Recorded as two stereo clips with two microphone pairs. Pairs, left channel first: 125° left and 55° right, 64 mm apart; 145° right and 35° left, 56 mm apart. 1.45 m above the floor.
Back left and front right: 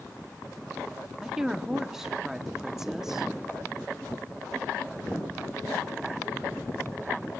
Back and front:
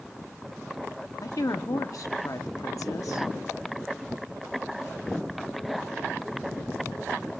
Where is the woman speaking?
140° right, 0.9 m.